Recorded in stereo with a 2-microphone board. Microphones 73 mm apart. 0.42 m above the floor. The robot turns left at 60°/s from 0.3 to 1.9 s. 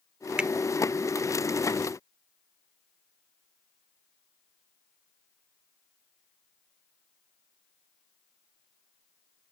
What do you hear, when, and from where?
0.4 s a finger snap: 15° right (ahead or behind); by 0.5 s 10° right (ahead or behind)